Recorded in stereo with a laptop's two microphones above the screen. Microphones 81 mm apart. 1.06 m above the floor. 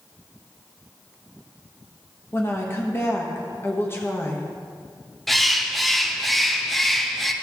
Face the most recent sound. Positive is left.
turn(degrees=0)  # may be behind; listen again after turning